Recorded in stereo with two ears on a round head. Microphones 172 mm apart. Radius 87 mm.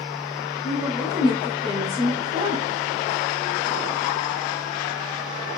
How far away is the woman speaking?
About 2.5 m.